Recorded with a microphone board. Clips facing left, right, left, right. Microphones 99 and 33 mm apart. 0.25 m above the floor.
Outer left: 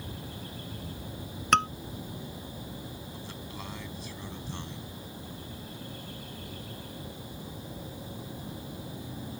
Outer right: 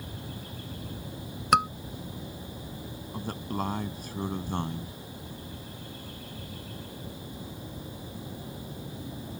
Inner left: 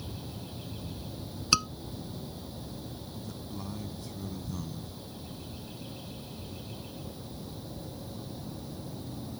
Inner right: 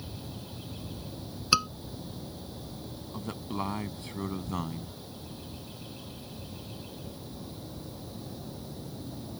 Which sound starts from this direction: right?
A man speaking, at 3.1 s.